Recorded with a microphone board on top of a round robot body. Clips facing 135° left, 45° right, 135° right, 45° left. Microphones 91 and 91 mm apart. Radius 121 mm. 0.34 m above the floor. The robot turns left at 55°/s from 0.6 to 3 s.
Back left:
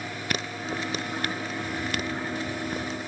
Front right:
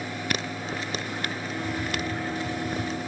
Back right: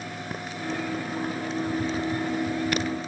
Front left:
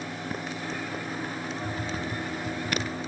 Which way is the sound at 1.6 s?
30° left.